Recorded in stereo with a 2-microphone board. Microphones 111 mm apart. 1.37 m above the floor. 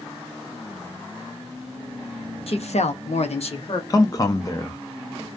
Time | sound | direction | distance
2.5 | a woman speaking | 60° left (ahead or behind) | 0.6 m
3.9 | a man speaking | 30° left (ahead or behind) | 0.5 m